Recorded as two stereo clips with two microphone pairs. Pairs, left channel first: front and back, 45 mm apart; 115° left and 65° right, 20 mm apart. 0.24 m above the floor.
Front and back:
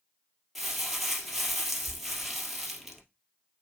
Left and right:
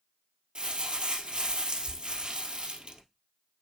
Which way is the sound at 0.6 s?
90° right.